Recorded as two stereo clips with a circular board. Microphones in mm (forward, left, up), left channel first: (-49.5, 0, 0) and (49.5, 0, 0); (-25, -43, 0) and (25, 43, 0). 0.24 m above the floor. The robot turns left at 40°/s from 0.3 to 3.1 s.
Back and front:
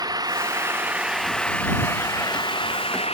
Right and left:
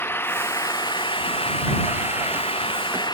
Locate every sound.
0.0 s an engine running: 50° right; by 3.1 s 165° right